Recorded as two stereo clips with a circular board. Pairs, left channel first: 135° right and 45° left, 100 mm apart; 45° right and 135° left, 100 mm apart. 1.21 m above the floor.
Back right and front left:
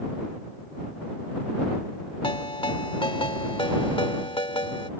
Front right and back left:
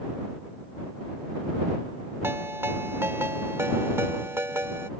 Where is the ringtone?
160° right.